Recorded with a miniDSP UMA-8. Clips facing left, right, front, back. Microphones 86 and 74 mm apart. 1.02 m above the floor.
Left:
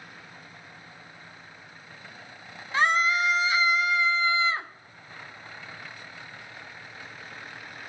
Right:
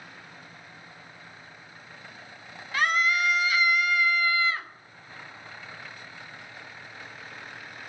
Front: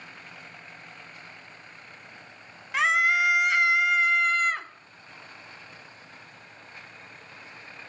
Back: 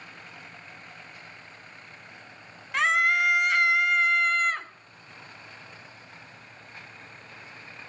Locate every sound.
2.7 s a scream: 85° left, 0.5 m